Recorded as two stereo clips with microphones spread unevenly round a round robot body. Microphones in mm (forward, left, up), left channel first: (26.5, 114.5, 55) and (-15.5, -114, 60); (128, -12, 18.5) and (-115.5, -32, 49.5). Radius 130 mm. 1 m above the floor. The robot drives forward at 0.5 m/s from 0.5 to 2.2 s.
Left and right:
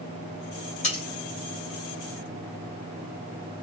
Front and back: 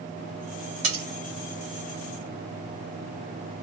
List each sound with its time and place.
0.8 s cutlery clinking: 140° left, 1.3 m; by 1.0 s 145° left, 1.4 m